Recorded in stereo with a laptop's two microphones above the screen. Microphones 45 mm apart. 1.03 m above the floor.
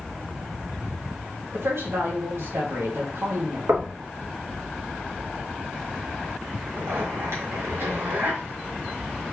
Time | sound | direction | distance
1.5 | a woman speaking | 75° right (ahead or behind) | 1.5 m
3.7 | knocking | 65° right (ahead or behind) | 1.1 m
6.7 | a zipper | 85° right | 1.8 m